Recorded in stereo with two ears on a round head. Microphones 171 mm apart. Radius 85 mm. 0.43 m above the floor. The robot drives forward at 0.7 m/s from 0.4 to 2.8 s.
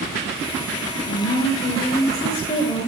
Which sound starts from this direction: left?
A woman speaking, at 1.1 s.